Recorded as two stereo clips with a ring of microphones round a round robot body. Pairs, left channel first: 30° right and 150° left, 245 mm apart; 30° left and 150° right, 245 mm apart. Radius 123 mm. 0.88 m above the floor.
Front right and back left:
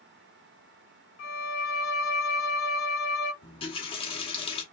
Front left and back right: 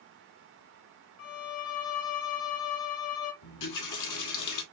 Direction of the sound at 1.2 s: 5° left.